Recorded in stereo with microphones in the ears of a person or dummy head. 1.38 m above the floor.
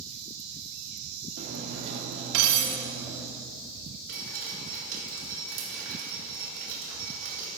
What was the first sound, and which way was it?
Cutlery clinking, 65° right (ahead or behind).